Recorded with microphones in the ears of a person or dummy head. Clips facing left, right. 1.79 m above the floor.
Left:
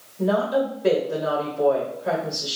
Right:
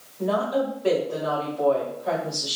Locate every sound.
0.2 s a woman speaking: 45° left (ahead or behind), 2 m